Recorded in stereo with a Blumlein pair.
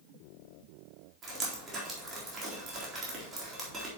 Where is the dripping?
20° right, 4 m.